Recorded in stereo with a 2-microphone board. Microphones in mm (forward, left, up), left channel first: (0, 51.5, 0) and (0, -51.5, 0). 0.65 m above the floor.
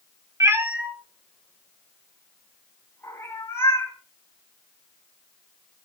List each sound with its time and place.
0.4 s a cat meowing: 30° right (ahead or behind), 0.7 m; by 3.9 s 25° left (ahead or behind), 3.5 m